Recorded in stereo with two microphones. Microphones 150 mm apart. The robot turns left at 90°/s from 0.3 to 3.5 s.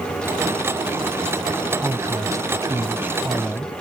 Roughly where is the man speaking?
Centre.